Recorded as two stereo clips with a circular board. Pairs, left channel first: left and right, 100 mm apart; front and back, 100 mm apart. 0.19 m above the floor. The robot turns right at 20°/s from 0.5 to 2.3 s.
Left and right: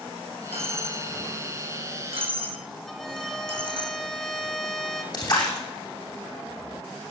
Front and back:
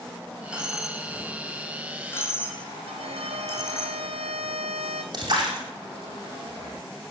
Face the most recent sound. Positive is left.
turn(degrees=135)